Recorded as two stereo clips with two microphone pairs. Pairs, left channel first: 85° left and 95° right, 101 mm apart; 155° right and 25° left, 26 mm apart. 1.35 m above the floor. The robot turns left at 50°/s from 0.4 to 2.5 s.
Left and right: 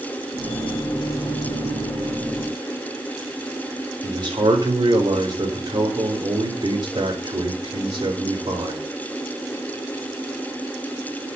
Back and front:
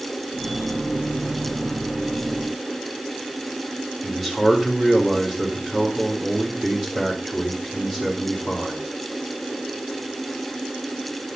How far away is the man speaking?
About 3.5 m.